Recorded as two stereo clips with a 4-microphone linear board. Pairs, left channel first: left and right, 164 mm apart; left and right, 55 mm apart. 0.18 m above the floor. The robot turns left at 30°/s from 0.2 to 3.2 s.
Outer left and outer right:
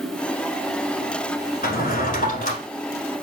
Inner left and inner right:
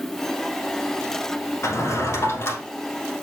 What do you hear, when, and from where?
1.6 s a drawer: 65° left (ahead or behind), 1.3 m; by 2.6 s 45° left (ahead or behind), 1.3 m